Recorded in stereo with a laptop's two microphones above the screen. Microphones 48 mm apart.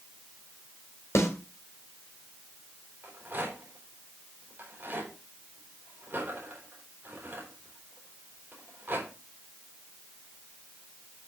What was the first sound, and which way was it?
A snare drum, 75° left (ahead or behind).